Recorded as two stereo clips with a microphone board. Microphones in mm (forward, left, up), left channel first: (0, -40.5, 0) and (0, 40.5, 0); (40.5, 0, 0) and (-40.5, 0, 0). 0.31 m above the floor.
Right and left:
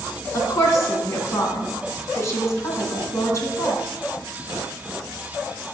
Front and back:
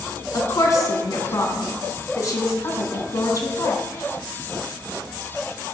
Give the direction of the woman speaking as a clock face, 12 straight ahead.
1 o'clock.